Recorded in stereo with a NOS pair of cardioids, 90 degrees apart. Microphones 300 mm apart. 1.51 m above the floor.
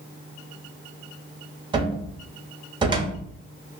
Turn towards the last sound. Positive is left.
turn(degrees=-15)